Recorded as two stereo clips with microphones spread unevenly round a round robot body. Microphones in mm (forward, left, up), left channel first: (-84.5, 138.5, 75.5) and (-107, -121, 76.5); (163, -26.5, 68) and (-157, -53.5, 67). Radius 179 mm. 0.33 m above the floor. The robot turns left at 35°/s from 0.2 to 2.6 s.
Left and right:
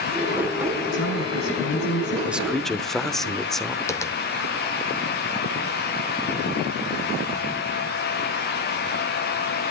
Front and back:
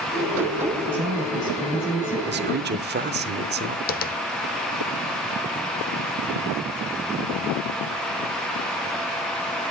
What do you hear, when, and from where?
0.9 s a woman speaking: 100° left, 5.5 m; by 2.2 s 60° left, 5.5 m
2.3 s a man speaking: 175° right, 0.9 m; by 3.8 s 175° left, 0.9 m
3.9 s tapping: 20° left, 0.8 m